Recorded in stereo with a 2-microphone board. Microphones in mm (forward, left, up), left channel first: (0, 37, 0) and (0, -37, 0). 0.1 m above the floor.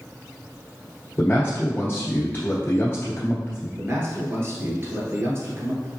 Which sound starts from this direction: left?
A man speaking, at 1.2 s.